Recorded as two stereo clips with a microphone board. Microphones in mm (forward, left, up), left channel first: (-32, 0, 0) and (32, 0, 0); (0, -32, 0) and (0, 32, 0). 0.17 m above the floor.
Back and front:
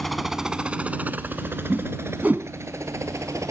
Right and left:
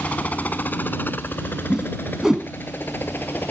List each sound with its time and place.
0.0 s a helicopter: 100° right; by 3.5 s 35° right
1.7 s a whoosh: 20° left